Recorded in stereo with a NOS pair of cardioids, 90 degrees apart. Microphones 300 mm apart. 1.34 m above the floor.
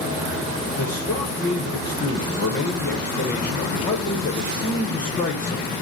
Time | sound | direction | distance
0.8 | a man speaking | 30° left | 0.8 m